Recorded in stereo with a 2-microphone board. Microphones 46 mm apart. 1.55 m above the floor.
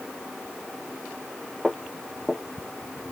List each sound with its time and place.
1.6 s footsteps: 10° right (ahead or behind), 1.7 m